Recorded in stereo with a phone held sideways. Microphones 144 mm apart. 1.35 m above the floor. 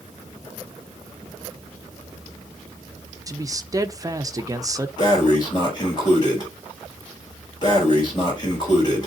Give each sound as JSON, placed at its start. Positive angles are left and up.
{"t": 3.3, "sound": "a man speaking", "side_deg": -25, "distance_m": 0.9}
{"t": 5.0, "sound": "breathing", "side_deg": 30, "distance_m": 4.5}